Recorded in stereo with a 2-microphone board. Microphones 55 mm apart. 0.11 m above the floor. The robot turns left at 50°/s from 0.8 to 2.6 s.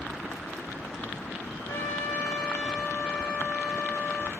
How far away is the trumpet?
About 8.5 m.